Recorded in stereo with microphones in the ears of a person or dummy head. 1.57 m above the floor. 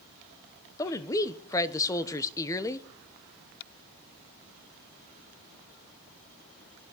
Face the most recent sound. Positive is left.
turn(degrees=20)  # may be behind; listen again after turning